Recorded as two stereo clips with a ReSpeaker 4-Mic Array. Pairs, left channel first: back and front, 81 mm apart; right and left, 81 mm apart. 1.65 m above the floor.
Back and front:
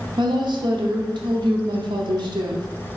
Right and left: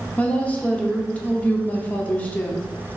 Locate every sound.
0.2 s a woman speaking: 20° right, 0.7 m